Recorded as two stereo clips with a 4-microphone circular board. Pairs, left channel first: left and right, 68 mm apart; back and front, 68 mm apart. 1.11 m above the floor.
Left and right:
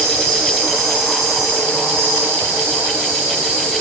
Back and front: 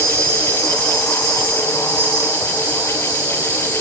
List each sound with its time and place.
0.0 s an insect: 45° right, 2 m